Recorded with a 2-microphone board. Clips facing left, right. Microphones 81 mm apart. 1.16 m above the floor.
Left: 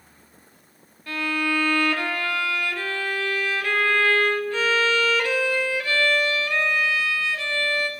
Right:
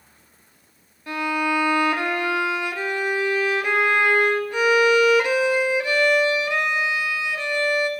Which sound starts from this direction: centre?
A violin, at 1.1 s.